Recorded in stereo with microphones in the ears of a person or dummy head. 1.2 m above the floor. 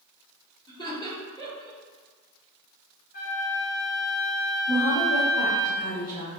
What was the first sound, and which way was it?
Laughter, 30° left (ahead or behind).